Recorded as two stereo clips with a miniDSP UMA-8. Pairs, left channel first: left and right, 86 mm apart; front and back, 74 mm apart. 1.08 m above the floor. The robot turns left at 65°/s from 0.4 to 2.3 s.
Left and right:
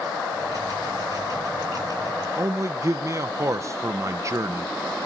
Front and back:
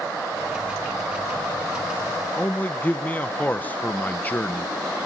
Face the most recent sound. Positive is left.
turn(degrees=-55)